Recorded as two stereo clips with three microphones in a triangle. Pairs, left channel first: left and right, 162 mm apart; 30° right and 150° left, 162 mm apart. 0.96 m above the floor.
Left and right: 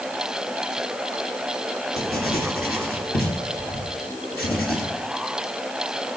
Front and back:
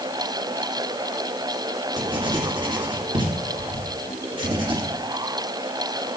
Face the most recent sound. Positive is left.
turn(degrees=95)